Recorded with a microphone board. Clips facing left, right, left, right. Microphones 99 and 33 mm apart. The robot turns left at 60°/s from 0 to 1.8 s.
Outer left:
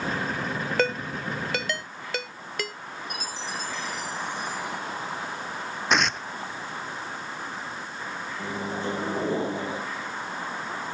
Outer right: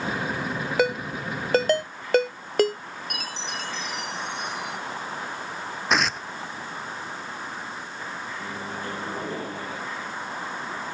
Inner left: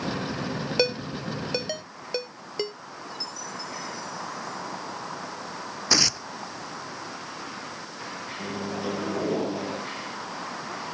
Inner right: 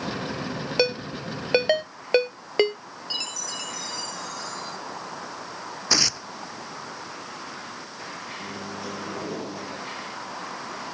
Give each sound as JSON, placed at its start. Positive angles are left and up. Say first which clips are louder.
{"t": 0.8, "sound": "a ringtone", "louder": "outer right 3 dB, inner right 2 dB", "side_deg": -10}
{"t": 3.1, "sound": "a chime", "louder": "even, inner right 6 dB", "side_deg": -75}
{"t": 5.9, "sound": "tearing paper", "louder": "even, even", "side_deg": 0}
{"t": 8.4, "sound": "a microwave", "louder": "outer left 6 dB, inner left 6 dB", "side_deg": 25}